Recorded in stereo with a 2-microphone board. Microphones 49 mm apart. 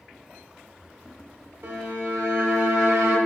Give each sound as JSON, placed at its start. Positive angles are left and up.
{"t": 1.6, "sound": "a violin", "side_deg": -75, "distance_m": 0.6}